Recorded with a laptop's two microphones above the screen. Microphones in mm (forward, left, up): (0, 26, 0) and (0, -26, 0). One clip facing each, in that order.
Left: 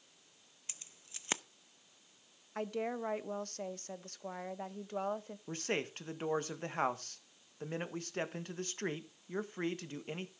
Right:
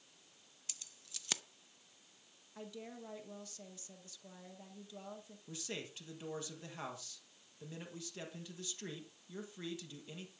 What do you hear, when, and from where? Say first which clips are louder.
0.7 s keys jangling: left 2 dB; 30° left (ahead or behind), 0.6 m
2.5 s a woman speaking: left 12 dB; 55° left (ahead or behind), 0.9 m
5.5 s a man speaking: left 9 dB; 50° left (ahead or behind), 1.4 m